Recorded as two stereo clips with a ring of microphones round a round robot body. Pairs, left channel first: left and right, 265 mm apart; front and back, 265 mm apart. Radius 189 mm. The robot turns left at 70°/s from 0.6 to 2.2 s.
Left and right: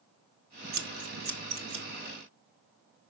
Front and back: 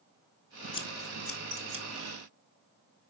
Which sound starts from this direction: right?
Scissors, at 0.7 s.